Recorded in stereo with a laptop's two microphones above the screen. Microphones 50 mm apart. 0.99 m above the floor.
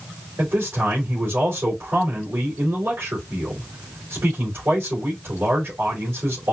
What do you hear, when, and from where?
0.4 s a man speaking: 75° right (ahead or behind), 2.5 m